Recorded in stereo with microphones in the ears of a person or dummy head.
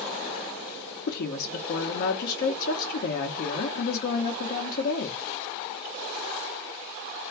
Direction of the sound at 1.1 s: 50° left (ahead or behind).